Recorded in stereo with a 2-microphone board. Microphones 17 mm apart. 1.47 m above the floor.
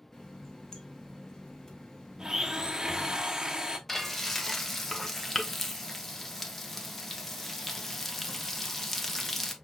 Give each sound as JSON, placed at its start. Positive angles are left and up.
{"t": 0.1, "sound": "a running tap", "side_deg": 30, "distance_m": 1.1}
{"t": 2.2, "sound": "a blender", "side_deg": -25, "distance_m": 0.7}
{"t": 3.9, "sound": "frying", "side_deg": 15, "distance_m": 0.8}